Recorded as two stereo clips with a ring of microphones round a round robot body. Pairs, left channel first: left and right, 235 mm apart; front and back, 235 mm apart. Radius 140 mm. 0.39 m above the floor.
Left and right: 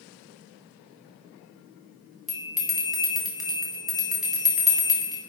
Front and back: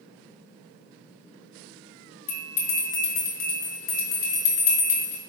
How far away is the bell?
About 2.5 m.